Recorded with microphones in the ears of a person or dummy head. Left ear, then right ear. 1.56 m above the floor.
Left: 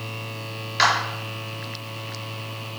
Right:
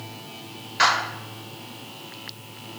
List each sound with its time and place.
0.8 s a clap: 20° left (ahead or behind), 3.5 m